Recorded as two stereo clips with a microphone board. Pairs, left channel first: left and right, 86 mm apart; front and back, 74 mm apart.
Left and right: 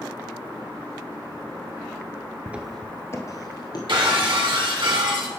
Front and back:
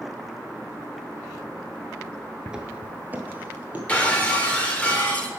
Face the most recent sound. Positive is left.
turn(degrees=-70)